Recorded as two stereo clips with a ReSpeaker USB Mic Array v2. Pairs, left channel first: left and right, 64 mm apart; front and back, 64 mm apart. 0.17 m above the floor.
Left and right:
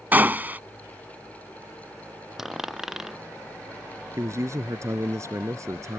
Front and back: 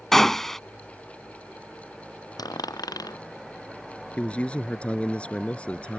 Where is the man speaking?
70° right.